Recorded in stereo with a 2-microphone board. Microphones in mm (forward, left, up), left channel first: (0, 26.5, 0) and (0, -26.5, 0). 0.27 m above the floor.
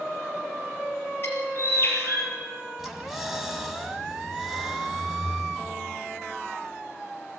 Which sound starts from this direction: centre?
Breathing, at 2.8 s.